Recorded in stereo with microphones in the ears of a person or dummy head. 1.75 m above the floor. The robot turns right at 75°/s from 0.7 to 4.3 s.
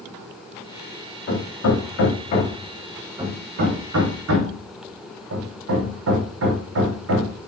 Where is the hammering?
55° left (ahead or behind), 3 m; by 7.4 s 75° right (ahead or behind), 3 m.